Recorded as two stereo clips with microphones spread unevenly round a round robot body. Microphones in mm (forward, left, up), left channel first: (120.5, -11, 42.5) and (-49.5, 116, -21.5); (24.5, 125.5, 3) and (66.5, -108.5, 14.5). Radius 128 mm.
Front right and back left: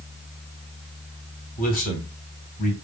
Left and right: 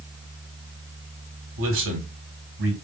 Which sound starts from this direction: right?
A man speaking, at 1.6 s.